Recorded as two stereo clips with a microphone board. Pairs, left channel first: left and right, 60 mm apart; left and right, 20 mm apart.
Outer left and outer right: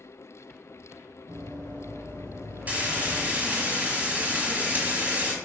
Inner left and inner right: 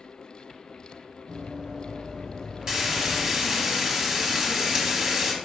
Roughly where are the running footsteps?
Right.